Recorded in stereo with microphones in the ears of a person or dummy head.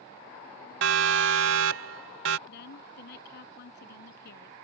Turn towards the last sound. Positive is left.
turn(degrees=60)  # may be behind; listen again after turning